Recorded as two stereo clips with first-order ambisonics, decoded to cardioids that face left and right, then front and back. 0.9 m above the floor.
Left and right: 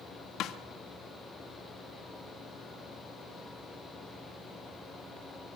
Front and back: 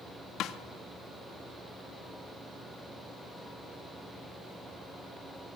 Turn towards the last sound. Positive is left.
turn(degrees=45)